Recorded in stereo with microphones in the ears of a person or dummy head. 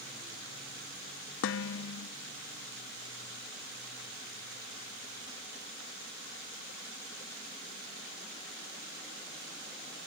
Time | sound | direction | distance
1.4 | dishes clattering | 65° left (ahead or behind) | 0.9 m